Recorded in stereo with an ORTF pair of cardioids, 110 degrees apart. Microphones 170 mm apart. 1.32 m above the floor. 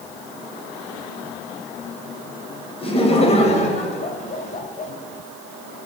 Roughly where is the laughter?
Ahead left.